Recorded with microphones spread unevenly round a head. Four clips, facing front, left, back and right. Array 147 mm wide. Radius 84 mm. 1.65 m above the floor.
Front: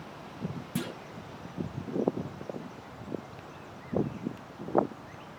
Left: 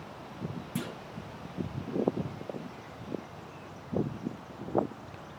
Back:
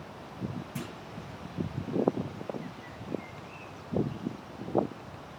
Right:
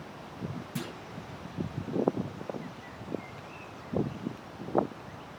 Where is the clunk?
25° left, 1.4 m.